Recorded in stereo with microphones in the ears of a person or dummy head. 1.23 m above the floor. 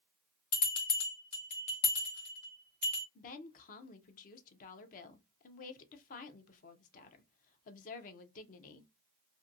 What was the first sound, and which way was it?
A bell, 50° left (ahead or behind).